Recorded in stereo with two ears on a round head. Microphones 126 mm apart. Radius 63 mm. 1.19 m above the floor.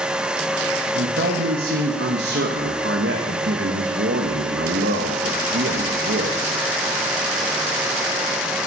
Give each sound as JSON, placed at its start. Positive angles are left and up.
{"t": 0.9, "sound": "a man speaking", "side_deg": -80, "distance_m": 1.1}